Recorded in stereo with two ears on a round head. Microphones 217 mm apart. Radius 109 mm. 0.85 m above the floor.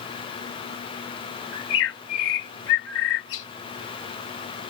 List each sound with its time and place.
1.5 s a bird: 60° left (ahead or behind)